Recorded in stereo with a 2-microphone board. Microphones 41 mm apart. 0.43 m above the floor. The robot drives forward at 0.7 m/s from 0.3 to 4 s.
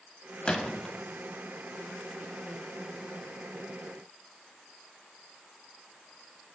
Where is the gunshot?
20° left (ahead or behind), 0.5 m; by 0.9 s 15° left (ahead or behind), 0.8 m.